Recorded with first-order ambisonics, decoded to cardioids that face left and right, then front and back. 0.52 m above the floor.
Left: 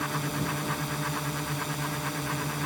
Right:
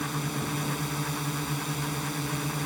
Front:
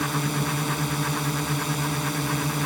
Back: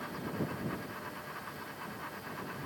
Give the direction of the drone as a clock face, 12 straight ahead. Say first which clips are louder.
Left 1 dB, front 12 dB; 12 o'clock.